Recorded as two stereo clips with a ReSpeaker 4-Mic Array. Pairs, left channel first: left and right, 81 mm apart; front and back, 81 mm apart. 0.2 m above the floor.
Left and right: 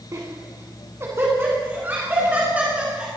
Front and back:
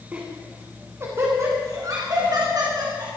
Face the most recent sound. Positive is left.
turn(degrees=-165)